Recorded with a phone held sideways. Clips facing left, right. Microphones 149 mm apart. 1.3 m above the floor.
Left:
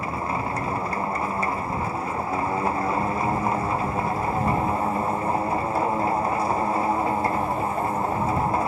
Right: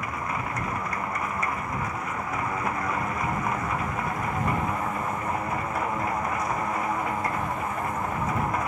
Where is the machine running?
25° left (ahead or behind).